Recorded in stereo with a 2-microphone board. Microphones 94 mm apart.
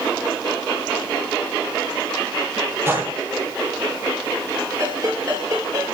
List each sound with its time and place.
2.9 s a gunshot: 25° right (ahead or behind), 9.5 m
4.8 s a ringtone: 35° right (ahead or behind), 6.5 m